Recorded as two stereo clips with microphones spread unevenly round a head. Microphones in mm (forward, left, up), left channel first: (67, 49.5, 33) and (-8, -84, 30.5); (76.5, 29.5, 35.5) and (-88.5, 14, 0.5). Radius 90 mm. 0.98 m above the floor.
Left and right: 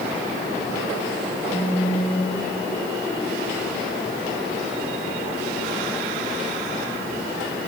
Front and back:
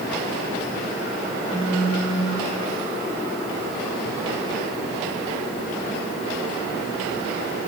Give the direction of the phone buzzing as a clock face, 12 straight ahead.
8 o'clock.